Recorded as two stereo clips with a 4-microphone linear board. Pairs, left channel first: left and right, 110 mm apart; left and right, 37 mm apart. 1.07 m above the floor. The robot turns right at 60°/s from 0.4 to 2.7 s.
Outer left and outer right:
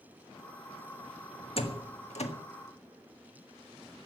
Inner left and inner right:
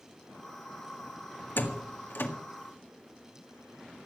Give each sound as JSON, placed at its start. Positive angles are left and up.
{"t": 1.6, "sound": "a door slam", "side_deg": 60, "distance_m": 1.8}